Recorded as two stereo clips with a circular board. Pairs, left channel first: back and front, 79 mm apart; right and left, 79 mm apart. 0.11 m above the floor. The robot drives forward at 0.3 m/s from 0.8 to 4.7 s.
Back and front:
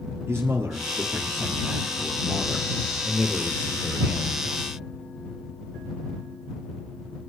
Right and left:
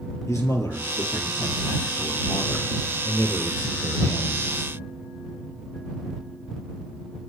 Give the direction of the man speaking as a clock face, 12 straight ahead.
2 o'clock.